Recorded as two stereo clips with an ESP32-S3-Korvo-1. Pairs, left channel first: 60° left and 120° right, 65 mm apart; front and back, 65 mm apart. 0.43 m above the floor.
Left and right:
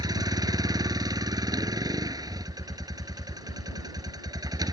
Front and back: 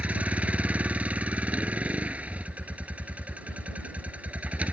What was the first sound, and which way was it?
A vehicle, 110° right.